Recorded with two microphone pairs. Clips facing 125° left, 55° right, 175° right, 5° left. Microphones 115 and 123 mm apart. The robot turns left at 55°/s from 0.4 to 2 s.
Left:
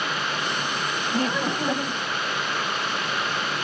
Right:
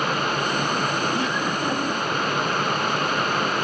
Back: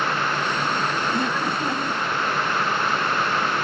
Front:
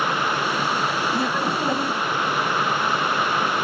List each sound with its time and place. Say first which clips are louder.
1.1 s laughter: even, front 1 dB; 90° left, 1.4 m; by 2.0 s 45° left, 1.4 m